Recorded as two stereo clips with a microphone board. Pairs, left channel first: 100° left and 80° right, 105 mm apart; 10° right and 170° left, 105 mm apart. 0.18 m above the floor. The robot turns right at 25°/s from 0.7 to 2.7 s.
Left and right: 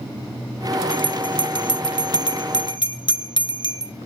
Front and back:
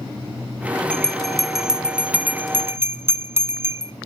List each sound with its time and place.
0.9 s a bell: 65° left, 1.0 m; by 3.9 s 110° left, 1.0 m